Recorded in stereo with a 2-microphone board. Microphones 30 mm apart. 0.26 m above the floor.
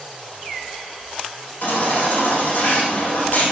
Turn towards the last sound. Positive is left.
turn(degrees=80)